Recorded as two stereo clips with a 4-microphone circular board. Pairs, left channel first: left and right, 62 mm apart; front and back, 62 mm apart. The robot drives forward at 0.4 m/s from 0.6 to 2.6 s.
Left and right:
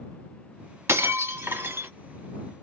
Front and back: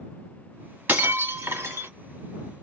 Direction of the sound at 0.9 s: 125° right.